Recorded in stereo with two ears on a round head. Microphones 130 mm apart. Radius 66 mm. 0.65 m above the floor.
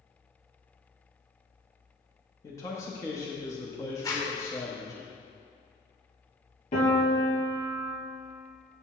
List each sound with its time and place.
2.4 s a man speaking: 20° left (ahead or behind), 0.7 m
4.0 s a zipper: 25° left (ahead or behind), 1.1 m
6.7 s a piano: 55° left (ahead or behind), 2 m